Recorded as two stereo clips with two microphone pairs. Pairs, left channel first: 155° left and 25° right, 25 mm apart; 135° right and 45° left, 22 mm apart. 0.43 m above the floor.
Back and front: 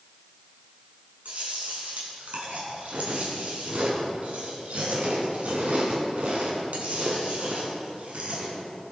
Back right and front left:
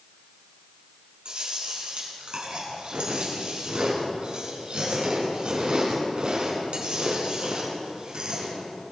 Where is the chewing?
Straight ahead, 5.5 m.